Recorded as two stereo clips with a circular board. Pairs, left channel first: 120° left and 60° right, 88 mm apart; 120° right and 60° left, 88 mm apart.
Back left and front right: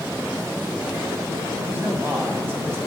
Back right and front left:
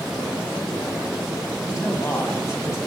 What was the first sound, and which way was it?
A man speaking, 105° right.